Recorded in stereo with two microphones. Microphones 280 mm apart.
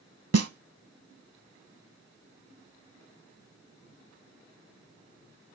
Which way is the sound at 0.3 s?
60° right (ahead or behind).